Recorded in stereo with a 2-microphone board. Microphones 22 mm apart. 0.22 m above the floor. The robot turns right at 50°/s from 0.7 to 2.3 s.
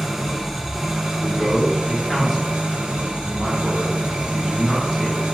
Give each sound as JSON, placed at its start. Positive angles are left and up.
{"t": 0.0, "sound": "an engine running", "azimuth_deg": -165, "distance_m": 0.9}
{"t": 1.2, "sound": "a man speaking", "side_deg": -25, "distance_m": 1.2}